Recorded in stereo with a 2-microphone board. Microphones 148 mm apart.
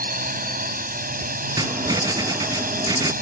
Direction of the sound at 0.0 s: 75° right (ahead or behind).